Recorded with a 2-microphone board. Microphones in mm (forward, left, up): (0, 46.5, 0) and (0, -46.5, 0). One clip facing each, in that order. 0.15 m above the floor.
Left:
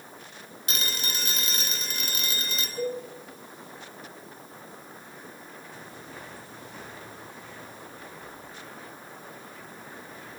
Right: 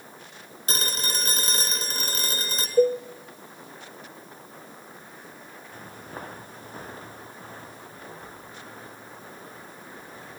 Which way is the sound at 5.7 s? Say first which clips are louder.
Right 6 dB; 50° right (ahead or behind).